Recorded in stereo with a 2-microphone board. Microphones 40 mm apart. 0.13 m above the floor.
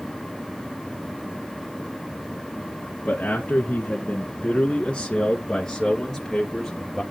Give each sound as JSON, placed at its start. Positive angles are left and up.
{"t": 3.0, "sound": "a man speaking", "side_deg": 40, "distance_m": 2.0}